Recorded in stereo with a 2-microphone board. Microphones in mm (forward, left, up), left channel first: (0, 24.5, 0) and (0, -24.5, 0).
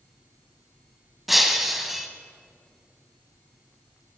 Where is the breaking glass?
Centre (ahead or behind), 0.7 m.